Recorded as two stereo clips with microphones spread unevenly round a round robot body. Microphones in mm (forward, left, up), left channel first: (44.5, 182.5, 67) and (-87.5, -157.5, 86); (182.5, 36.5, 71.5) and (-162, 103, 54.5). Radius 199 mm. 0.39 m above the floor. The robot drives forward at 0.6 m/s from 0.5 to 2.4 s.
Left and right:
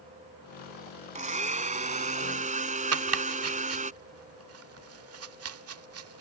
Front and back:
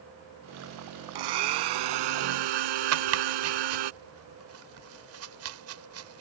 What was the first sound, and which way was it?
A blender, 175° left.